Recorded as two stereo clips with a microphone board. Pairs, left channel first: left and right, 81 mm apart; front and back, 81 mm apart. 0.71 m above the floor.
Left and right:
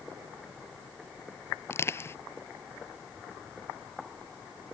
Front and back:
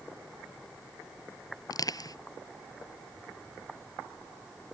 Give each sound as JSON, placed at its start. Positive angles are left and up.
{"t": 1.7, "sound": "crushing", "azimuth_deg": 35}